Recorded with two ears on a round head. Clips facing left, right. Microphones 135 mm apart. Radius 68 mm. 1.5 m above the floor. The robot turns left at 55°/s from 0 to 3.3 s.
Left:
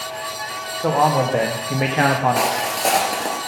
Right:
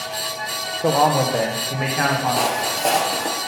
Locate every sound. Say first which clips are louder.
0.8 s a man speaking: even; 165° right, 0.6 m; by 2.6 s 95° left, 0.6 m
2.4 s footsteps: left 1 dB; 5° left (ahead or behind), 1.6 m